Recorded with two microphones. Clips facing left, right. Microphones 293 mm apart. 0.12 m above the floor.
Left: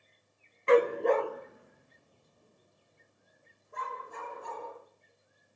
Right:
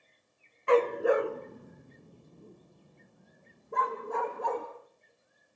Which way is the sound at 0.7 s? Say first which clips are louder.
Left 1 dB; 25° left (ahead or behind).